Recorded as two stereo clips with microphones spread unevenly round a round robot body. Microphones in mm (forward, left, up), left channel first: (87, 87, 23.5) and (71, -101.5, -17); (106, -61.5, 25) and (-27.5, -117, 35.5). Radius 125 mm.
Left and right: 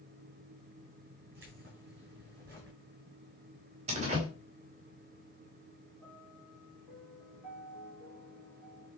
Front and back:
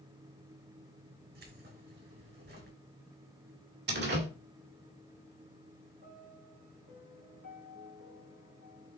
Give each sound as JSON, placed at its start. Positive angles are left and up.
{"t": 1.4, "sound": "keys jangling", "azimuth_deg": -150, "distance_m": 4.0}
{"t": 3.9, "sound": "a door slam", "azimuth_deg": -160, "distance_m": 2.0}
{"t": 6.0, "sound": "a piano", "azimuth_deg": 175, "distance_m": 4.0}